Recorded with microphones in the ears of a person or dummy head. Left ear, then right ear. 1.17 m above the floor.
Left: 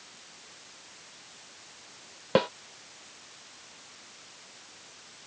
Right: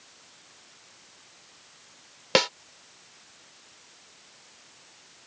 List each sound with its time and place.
2.4 s a snare drum: 75° right (ahead or behind)